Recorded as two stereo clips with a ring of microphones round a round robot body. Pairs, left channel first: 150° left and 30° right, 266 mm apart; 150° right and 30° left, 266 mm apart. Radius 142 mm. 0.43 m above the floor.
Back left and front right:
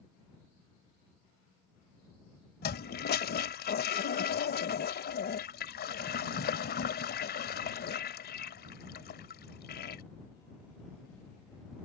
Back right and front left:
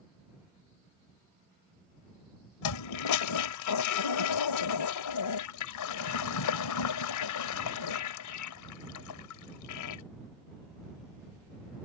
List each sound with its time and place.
2.6 s a toilet flushing: 155° right